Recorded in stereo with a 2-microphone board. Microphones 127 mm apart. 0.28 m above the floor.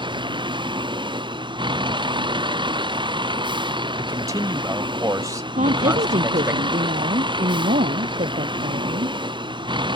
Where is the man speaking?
25° right (ahead or behind).